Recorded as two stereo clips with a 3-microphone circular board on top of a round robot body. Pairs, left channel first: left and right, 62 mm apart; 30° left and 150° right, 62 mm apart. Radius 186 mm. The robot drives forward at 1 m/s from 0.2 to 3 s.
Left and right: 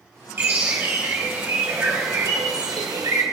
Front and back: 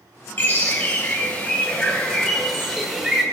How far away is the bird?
About 4 m.